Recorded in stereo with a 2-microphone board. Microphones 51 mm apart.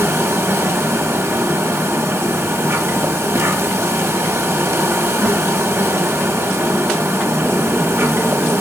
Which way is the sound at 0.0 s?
65° right (ahead or behind).